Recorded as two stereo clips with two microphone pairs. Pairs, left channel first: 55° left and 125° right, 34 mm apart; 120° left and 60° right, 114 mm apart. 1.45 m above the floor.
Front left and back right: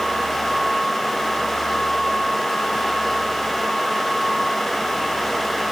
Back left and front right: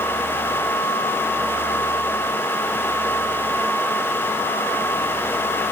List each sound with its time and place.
Only background noise.